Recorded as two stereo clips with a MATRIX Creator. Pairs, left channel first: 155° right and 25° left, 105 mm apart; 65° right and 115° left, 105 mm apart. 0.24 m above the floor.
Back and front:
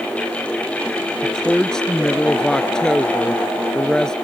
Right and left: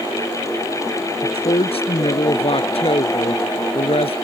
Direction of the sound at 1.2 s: 75° right.